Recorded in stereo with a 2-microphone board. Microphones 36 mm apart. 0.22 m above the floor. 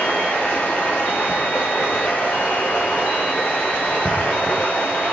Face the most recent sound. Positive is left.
turn(degrees=50)  # may be behind; listen again after turning